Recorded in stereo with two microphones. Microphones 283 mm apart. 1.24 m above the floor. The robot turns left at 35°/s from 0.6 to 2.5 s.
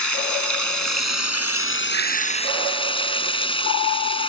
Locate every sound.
0.0 s running water: 85° left; by 4.3 s 20° left